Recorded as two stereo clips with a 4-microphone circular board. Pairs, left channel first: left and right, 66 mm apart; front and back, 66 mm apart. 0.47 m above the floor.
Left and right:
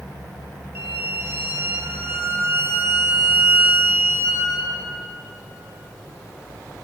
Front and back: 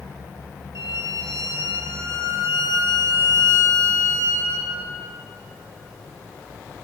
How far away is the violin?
About 1.8 m.